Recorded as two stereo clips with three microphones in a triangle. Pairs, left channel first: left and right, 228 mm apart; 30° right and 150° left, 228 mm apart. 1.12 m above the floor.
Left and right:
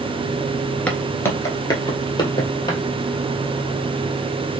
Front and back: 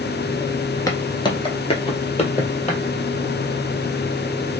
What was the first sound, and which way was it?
Footsteps, 15° left.